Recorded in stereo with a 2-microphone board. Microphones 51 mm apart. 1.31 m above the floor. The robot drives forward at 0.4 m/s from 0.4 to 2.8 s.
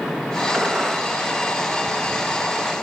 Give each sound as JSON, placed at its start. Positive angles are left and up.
{"t": 0.5, "sound": "a gunshot", "side_deg": -10, "distance_m": 1.1}